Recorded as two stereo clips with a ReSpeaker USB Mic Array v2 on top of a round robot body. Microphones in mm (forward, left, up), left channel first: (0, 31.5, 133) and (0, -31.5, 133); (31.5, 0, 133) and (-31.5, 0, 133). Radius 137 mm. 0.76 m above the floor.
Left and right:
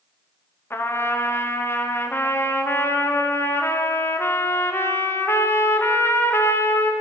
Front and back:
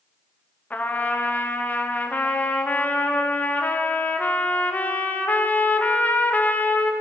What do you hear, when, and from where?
0.7 s a trumpet: 55° left, 1.1 m